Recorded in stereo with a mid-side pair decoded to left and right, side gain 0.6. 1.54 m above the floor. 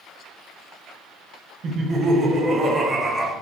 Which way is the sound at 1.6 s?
45° right.